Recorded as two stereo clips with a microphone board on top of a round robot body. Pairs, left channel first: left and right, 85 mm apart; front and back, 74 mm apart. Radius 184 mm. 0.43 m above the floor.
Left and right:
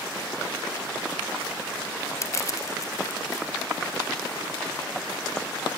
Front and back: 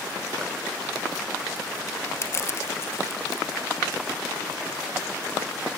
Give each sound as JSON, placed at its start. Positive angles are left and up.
{"t": 2.2, "sound": "crushing", "azimuth_deg": 45, "distance_m": 1.6}